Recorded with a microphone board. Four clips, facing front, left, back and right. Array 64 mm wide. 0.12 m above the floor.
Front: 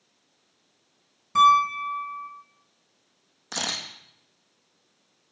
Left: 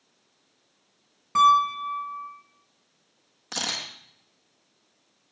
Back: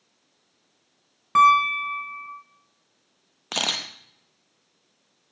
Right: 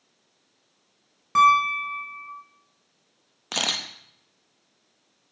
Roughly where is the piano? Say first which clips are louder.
Right 1 dB, back 1 dB; behind.